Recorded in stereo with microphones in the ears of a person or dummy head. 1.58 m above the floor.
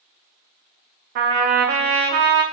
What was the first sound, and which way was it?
A trumpet, 45° right (ahead or behind).